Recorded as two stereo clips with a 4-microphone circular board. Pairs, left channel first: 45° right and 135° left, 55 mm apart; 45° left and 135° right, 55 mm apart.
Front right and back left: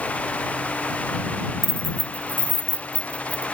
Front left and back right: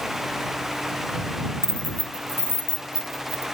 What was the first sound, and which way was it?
Keys jangling, 10° right.